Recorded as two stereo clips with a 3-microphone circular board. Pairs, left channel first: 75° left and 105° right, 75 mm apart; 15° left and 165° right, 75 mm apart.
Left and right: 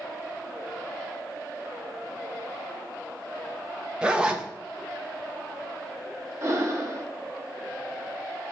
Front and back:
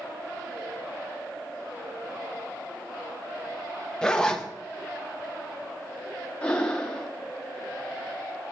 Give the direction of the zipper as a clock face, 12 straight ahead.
2 o'clock.